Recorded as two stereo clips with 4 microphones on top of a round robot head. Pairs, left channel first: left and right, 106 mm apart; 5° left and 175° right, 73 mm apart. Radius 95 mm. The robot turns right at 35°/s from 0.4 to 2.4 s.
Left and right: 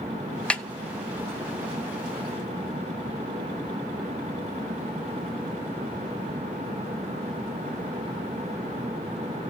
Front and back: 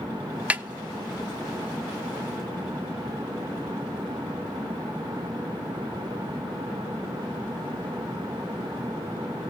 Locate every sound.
0.5 s a snare drum: 150° left, 1.2 m; by 0.6 s 155° left, 1.2 m